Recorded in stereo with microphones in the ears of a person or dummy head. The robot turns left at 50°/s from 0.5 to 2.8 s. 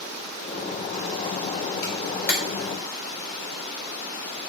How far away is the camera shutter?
About 1.3 m.